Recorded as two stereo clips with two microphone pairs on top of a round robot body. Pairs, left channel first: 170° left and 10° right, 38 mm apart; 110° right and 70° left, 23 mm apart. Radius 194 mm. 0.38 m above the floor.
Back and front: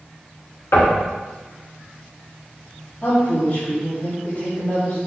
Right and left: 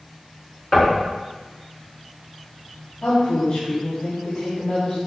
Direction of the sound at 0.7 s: 170° left.